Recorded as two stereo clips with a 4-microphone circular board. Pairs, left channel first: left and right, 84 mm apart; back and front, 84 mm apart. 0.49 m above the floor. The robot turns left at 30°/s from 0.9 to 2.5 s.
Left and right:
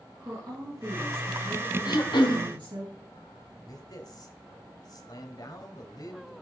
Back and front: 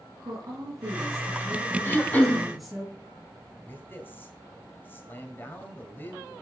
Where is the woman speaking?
40° right, 5.5 m; by 2.9 s 90° right, 5.5 m.